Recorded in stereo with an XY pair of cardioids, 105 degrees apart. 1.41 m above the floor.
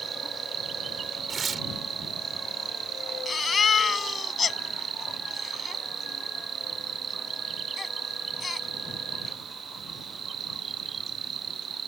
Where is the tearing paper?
40° right.